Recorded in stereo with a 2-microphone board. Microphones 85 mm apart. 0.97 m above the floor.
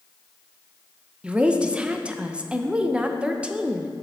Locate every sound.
1.2 s a woman speaking: 15° right (ahead or behind), 0.5 m